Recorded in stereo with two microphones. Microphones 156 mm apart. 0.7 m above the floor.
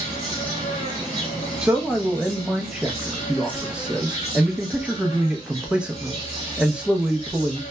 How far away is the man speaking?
About 0.6 m.